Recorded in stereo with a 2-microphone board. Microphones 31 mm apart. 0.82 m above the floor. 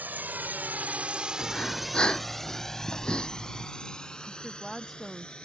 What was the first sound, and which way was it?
A drone, 70° right (ahead or behind).